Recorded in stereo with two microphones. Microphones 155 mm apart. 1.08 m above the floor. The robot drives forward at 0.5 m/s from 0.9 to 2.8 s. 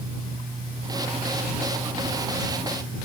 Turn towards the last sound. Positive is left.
No sound to turn to.